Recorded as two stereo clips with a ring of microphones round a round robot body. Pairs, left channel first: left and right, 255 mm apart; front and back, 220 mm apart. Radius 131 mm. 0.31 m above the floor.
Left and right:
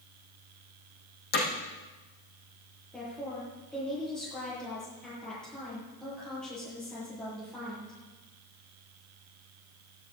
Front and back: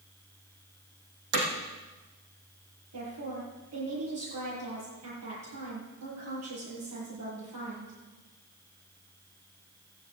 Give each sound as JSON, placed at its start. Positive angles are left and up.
{"t": 1.3, "sound": "hammering", "azimuth_deg": 145, "distance_m": 4.5}
{"t": 2.9, "sound": "a woman speaking", "azimuth_deg": 175, "distance_m": 9.5}